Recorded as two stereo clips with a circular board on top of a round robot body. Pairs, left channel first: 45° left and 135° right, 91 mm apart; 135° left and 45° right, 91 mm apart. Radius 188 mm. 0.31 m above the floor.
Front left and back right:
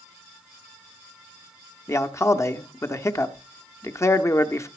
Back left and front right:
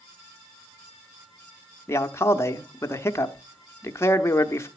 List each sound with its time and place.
1.9 s a man speaking: 90° left, 1.1 m